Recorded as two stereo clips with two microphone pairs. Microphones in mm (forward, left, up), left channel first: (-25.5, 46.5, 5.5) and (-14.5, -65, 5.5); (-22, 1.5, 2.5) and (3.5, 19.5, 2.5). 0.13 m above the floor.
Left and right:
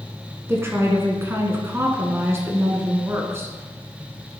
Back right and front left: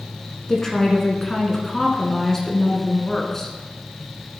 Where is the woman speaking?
85° right, 1.2 m.